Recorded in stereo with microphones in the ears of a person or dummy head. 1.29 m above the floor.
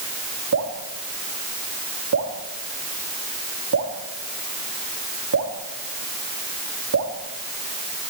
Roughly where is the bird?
No bird in this recording.